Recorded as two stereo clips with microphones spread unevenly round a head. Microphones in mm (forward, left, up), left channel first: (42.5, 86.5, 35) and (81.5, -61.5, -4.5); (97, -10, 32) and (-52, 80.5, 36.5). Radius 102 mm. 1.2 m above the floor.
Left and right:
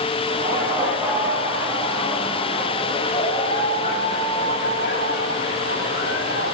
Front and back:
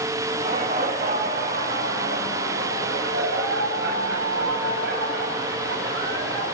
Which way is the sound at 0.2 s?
150° right.